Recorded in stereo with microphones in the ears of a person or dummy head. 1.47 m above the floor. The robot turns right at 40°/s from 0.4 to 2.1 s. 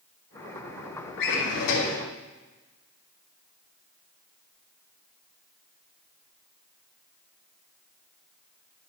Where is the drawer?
75° left, 3 m; by 2.0 s 110° left, 3 m.